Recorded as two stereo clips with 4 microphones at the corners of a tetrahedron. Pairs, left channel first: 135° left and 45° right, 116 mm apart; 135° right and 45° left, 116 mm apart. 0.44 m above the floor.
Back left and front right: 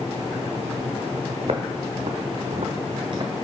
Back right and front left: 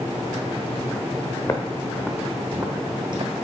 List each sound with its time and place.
1.4 s footsteps: 80° right, 1.3 m; by 3.3 s 10° left, 1.2 m